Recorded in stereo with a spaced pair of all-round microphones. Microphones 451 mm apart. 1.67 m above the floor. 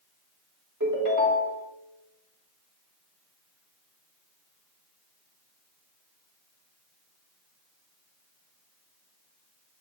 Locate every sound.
0.8 s a ringtone: 40° right (ahead or behind), 2.5 m